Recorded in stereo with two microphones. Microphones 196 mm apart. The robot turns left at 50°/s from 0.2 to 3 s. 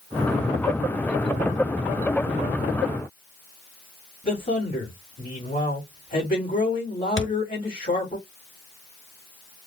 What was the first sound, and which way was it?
A man speaking, 45° left (ahead or behind).